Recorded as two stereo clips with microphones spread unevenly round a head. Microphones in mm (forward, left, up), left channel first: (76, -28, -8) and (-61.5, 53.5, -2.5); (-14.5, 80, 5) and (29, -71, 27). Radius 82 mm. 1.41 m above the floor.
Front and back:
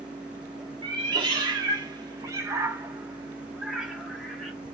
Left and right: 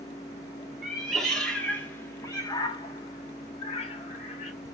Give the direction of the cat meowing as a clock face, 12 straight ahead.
5 o'clock.